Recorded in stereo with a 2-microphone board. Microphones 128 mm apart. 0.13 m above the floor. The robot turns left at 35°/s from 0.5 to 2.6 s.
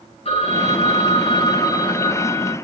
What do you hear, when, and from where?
0.2 s a phone ringing: 85° left, 1.2 m; by 2.5 s 10° left, 1.2 m